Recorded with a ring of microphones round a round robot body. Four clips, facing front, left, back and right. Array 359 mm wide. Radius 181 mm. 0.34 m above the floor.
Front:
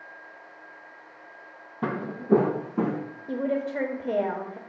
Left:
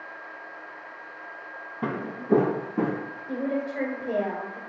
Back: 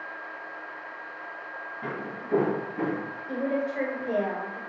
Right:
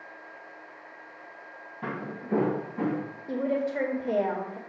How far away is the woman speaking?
About 1.4 m.